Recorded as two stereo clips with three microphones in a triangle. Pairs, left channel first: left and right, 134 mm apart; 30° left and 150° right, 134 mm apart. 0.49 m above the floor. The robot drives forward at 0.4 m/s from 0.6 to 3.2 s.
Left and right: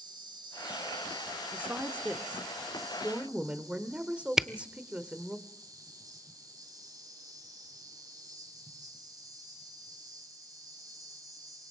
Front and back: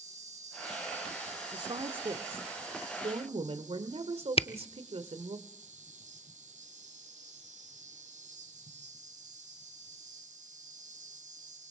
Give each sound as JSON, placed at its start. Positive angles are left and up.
{"t": 0.0, "sound": "an insect", "azimuth_deg": -140, "distance_m": 4.0}
{"t": 1.5, "sound": "a woman speaking", "azimuth_deg": -160, "distance_m": 1.4}
{"t": 4.4, "sound": "a camera shutter", "azimuth_deg": -5, "distance_m": 0.7}